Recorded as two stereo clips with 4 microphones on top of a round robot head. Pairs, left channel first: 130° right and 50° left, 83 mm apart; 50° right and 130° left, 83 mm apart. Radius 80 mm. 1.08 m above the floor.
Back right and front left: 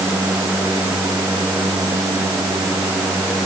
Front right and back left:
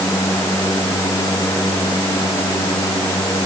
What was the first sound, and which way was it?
Only background noise.